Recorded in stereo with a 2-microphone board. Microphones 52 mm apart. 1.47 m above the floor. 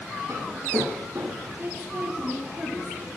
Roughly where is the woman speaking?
Right.